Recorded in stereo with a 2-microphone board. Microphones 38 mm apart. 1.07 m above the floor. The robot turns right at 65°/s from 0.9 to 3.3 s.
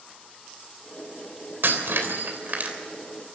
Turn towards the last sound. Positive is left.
turn(degrees=0)